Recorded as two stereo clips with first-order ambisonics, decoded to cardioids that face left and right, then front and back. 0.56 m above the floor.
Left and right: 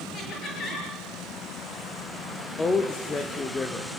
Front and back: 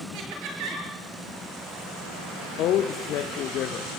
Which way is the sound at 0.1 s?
155° left.